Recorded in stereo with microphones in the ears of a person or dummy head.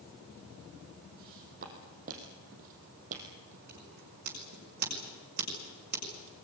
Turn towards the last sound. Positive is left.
turn(degrees=-50)  # may be behind; listen again after turning